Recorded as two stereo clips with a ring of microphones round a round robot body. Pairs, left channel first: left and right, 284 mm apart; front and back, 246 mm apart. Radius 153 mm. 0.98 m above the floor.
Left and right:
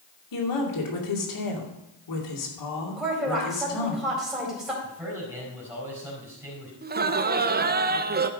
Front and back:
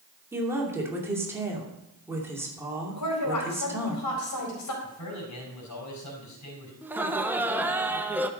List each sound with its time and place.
0.3 s a woman speaking: 100° left, 2.5 m
3.0 s a woman speaking: straight ahead, 4 m
4.8 s a man speaking: 10° right, 5 m
6.8 s laughter: 105° right, 0.8 m